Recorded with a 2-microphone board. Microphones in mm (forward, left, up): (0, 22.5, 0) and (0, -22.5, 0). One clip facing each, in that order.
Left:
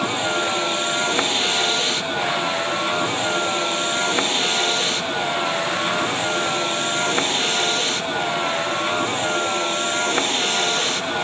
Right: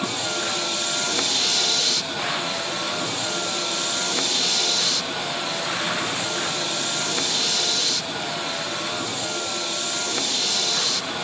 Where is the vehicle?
25° left (ahead or behind); by 11.2 s 35° left (ahead or behind).